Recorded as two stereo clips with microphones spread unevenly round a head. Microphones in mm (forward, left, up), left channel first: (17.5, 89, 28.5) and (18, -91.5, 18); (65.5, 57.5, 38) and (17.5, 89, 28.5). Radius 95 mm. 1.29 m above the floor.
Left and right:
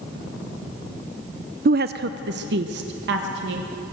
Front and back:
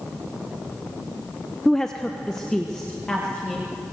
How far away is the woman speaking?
About 0.5 m.